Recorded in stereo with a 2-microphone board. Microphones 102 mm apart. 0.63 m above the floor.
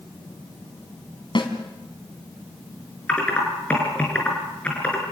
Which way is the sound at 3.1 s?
15° left (ahead or behind).